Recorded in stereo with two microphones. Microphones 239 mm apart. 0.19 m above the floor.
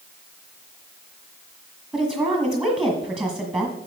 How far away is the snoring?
I don't hear snoring.